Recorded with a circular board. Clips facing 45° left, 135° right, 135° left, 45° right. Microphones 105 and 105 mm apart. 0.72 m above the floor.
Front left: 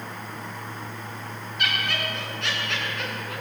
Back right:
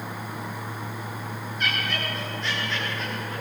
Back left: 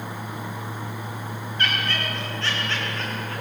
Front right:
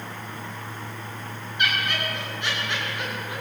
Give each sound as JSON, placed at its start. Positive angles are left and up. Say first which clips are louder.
{"t": 1.6, "sound": "laughter", "louder": "front left 1 dB, front right 1 dB", "azimuth_deg": 30, "distance_m": 9.5}